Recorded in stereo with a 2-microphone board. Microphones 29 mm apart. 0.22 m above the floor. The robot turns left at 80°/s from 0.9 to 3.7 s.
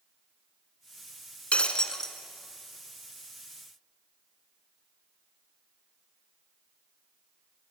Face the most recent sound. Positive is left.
turn(degrees=-110)